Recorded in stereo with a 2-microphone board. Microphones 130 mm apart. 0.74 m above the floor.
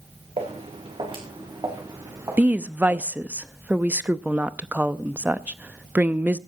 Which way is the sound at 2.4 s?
10° right (ahead or behind).